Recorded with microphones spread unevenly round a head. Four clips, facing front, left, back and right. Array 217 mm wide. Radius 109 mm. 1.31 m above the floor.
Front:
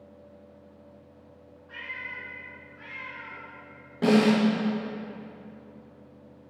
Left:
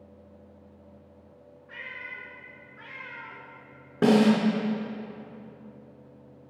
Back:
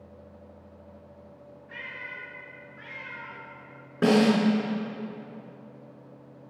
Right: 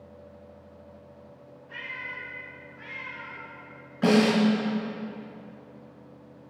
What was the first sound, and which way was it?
A cat meowing, 50° left.